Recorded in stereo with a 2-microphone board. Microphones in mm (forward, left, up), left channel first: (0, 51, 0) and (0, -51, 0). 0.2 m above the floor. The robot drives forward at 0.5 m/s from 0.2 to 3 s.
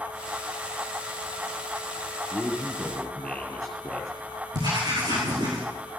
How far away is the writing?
About 5 m.